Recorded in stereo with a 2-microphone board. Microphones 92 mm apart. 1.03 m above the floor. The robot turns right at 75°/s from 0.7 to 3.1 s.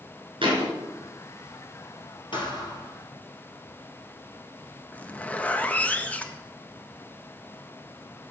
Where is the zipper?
15° left (ahead or behind), 0.6 m.